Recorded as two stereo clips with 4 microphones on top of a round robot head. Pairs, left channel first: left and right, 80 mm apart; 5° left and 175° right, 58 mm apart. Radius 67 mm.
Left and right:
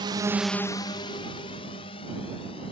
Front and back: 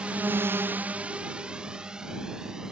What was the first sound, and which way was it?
A drone, 100° right.